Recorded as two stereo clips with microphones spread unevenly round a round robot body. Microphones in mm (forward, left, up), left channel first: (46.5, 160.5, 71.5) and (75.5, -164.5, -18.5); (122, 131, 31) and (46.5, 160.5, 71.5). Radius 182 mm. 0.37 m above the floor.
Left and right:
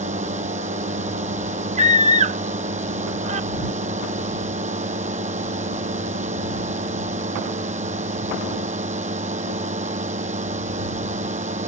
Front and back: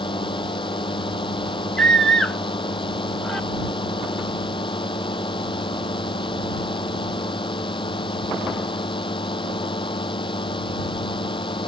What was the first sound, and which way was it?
A drone, 15° right.